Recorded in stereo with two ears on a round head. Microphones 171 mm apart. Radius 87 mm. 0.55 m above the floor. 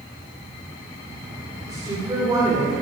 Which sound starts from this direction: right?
A woman speaking, at 1.7 s.